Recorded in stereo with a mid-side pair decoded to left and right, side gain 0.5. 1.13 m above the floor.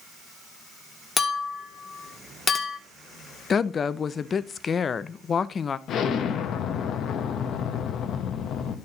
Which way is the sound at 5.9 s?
55° left.